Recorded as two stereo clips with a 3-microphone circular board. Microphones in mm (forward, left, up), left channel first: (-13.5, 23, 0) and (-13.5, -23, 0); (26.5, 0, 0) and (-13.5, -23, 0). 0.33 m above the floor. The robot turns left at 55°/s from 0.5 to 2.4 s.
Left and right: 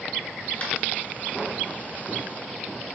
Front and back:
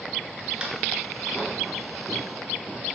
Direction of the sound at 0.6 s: 145° left.